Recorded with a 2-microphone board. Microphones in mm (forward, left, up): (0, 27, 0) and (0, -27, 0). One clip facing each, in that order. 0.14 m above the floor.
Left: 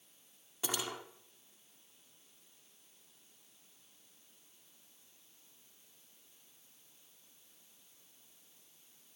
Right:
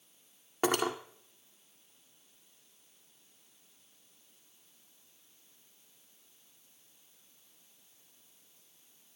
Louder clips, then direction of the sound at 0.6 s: Right 10 dB; 50° right (ahead or behind).